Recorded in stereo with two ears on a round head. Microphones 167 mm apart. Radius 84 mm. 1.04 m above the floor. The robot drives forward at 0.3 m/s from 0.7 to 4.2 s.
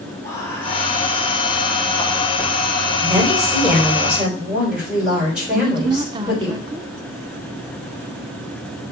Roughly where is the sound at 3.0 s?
Centre.